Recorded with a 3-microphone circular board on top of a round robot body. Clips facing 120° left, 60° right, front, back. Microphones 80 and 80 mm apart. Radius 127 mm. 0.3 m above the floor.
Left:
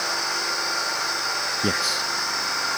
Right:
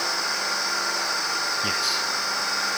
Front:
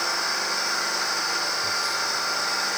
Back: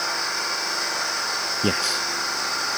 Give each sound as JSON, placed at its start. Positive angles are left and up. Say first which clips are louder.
{"t": 1.6, "sound": "a man speaking", "louder": "left 2 dB, back 3 dB", "azimuth_deg": 175}